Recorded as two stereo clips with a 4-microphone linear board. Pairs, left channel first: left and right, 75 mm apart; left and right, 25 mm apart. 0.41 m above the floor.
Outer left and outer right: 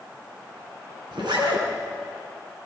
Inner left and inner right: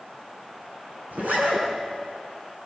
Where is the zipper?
70° right (ahead or behind), 4.5 m.